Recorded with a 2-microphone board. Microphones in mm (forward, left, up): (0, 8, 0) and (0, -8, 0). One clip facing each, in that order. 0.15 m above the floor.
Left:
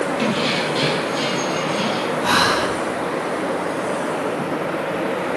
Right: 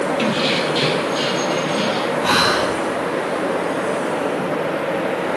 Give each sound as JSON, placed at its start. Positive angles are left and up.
{"t": 0.2, "sound": "keys jangling", "side_deg": -20, "distance_m": 2.5}
{"t": 2.2, "sound": "breathing", "side_deg": -15, "distance_m": 4.5}